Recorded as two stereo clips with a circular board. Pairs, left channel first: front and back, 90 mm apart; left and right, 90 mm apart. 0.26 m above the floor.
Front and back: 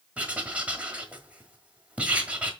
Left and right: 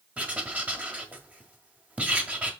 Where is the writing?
130° right, 1.6 m.